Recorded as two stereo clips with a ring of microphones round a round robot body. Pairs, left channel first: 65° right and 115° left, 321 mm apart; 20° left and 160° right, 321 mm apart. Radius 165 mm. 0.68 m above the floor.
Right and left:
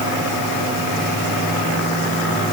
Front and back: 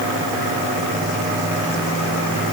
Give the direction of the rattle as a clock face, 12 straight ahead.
No rattle in this recording.